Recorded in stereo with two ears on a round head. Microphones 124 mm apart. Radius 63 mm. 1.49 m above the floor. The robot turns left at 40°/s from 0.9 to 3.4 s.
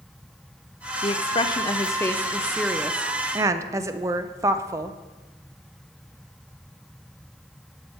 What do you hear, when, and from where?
1.0 s a woman speaking: 65° left, 0.5 m; by 5.0 s 30° right, 0.5 m